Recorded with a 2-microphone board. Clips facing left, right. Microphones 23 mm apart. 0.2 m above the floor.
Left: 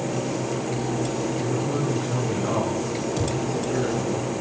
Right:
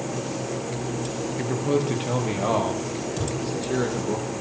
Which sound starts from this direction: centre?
A thud, at 3.2 s.